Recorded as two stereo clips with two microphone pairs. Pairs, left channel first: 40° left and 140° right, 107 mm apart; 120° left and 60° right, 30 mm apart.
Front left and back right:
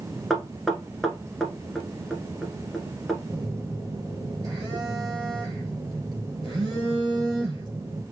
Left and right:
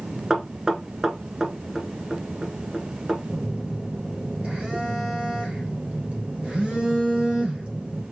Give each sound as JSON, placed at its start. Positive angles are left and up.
{"t": 0.3, "sound": "knocking", "azimuth_deg": -50, "distance_m": 1.1}
{"t": 3.3, "sound": "a phone buzzing", "azimuth_deg": -95, "distance_m": 2.5}